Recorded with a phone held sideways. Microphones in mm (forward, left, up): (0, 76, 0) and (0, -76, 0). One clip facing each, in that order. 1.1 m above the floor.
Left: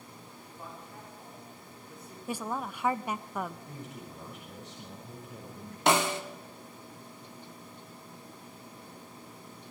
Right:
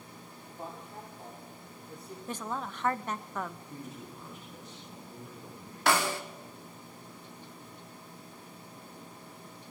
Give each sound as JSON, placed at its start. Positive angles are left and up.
{"t": 0.5, "sound": "a man speaking", "side_deg": -35, "distance_m": 4.0}
{"t": 2.3, "sound": "a woman speaking", "side_deg": 10, "distance_m": 0.8}
{"t": 3.7, "sound": "a man speaking", "side_deg": 75, "distance_m": 6.5}
{"t": 5.9, "sound": "a snare drum", "side_deg": 20, "distance_m": 1.8}